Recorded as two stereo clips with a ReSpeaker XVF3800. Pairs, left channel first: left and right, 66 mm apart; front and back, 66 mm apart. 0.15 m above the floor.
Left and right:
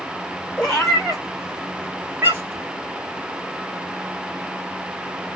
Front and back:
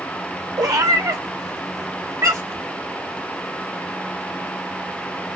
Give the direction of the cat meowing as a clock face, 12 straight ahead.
6 o'clock.